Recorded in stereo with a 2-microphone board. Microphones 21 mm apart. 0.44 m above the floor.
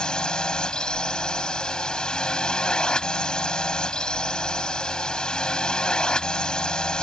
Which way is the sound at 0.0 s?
45° left (ahead or behind).